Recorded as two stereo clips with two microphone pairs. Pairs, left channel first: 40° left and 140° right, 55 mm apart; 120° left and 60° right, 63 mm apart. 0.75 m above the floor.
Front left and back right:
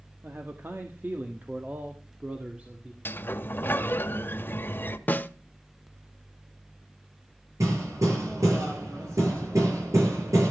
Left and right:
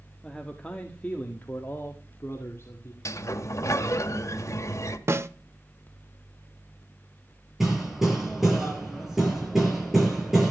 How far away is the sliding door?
About 1.3 m.